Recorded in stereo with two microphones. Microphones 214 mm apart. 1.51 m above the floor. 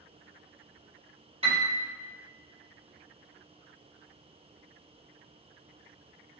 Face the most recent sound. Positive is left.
turn(degrees=-25)  # may be behind; listen again after turning